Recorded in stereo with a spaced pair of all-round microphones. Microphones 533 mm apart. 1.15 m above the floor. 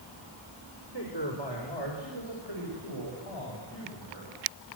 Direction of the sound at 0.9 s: 55° left (ahead or behind).